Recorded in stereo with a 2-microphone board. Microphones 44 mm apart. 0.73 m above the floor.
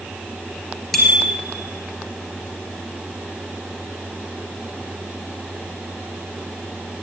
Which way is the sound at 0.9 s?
5° left (ahead or behind).